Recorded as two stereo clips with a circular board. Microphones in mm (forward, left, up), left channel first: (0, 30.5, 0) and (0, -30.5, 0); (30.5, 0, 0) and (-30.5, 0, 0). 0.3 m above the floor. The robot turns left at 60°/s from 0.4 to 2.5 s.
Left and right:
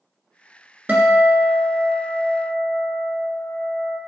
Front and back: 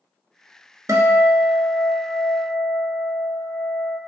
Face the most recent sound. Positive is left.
turn(degrees=115)